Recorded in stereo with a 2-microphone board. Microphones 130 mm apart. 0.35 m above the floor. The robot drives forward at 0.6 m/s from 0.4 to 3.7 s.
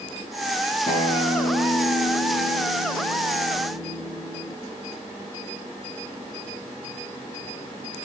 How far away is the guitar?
About 6 m.